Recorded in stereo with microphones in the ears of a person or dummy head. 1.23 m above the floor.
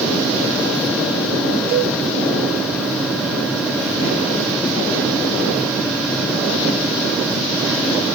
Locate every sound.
1.7 s a cowbell: 75° right (ahead or behind), 7 m